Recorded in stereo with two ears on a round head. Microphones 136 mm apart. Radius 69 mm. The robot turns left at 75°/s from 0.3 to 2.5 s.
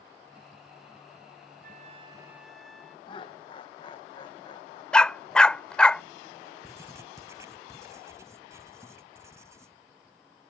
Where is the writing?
20° right (ahead or behind).